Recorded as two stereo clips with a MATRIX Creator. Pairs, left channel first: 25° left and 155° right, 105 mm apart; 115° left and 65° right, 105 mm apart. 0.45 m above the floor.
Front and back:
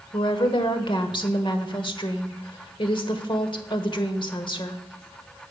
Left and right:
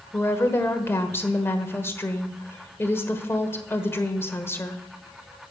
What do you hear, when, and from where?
0.1 s a woman speaking: 50° left, 1.3 m